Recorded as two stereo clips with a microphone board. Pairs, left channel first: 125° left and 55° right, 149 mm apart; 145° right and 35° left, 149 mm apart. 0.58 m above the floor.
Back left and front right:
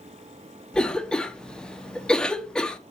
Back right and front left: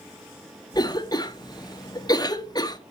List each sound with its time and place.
0.7 s a cough: 155° right, 1.0 m